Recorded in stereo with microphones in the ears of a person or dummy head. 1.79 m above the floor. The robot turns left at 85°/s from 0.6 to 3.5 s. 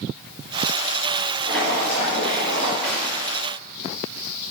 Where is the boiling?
175° right, 4.5 m; by 2.7 s 75° left, 4.5 m.